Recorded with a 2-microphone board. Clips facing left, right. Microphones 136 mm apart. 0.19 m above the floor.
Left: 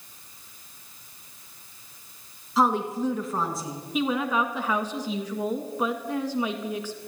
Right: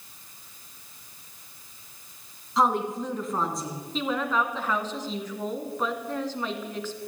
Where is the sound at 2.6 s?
5° left (ahead or behind), 2.5 m.